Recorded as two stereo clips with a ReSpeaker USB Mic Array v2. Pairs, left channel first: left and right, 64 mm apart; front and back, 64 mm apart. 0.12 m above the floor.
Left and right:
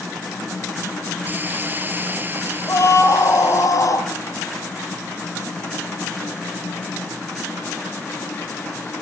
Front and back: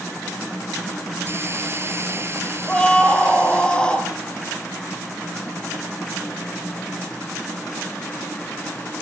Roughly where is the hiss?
Behind right.